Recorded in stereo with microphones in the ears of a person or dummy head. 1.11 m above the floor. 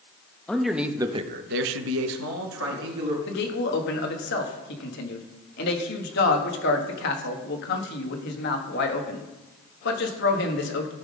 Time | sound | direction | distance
0.5 | a man speaking | 5° left (ahead or behind) | 1.1 m
3.3 | a man speaking | 55° left (ahead or behind) | 1.4 m